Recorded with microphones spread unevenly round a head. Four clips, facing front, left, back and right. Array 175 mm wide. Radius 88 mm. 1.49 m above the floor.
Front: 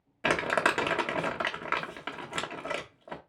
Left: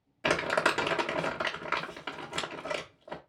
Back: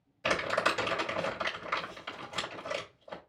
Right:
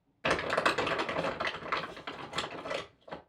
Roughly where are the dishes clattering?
No dishes clattering in this recording.